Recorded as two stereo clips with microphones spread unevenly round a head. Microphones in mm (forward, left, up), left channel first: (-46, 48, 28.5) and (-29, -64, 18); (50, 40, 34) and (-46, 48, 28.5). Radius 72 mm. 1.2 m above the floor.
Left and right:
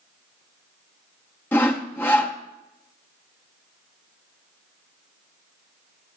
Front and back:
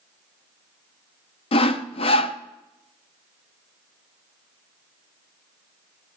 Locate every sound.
1.5 s sawing: 20° left, 0.5 m